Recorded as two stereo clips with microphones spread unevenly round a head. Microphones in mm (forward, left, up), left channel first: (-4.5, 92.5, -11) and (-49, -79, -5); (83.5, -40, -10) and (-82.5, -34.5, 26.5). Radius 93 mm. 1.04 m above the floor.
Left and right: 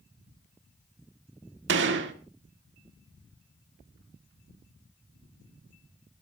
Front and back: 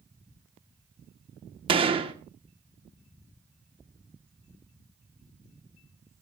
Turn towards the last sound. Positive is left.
turn(degrees=-125)